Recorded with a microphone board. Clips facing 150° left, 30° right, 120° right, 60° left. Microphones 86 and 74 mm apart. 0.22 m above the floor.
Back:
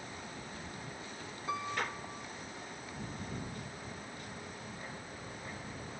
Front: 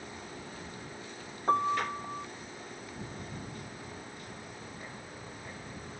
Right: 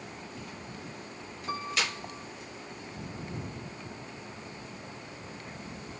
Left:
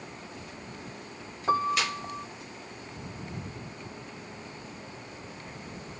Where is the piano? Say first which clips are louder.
Front 9 dB, left 8 dB; 15° left.